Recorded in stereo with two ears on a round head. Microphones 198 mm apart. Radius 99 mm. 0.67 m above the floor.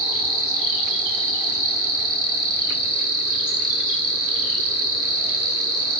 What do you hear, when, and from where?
0.0 s an insect: 65° right (ahead or behind), 0.7 m